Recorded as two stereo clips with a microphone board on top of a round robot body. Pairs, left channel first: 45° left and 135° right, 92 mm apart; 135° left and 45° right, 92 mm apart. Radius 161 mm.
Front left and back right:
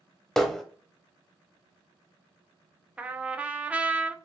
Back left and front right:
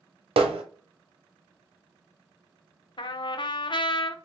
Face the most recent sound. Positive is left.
turn(degrees=150)